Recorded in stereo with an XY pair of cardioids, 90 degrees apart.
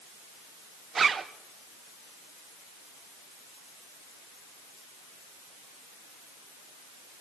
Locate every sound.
0.9 s a zipper: 45° right, 1.0 m